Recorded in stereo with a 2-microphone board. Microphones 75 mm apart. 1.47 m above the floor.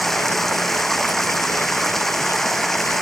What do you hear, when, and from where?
0.0 s running water: 5° left (ahead or behind)